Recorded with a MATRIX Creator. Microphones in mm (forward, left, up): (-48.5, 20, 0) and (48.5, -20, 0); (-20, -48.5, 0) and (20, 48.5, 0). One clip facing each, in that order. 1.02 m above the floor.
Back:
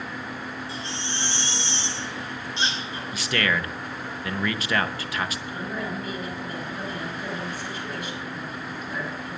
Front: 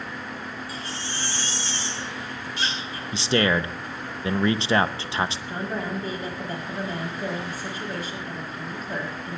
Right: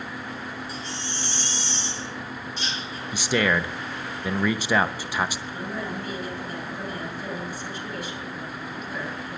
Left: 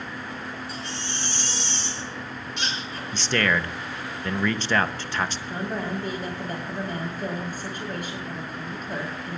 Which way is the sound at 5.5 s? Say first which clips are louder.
Front 2 dB, left 2 dB; 25° left.